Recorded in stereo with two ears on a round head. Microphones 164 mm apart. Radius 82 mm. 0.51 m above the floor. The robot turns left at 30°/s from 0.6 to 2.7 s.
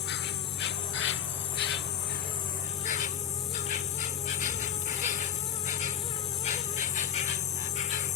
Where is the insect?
105° left; by 8.2 s 45° left.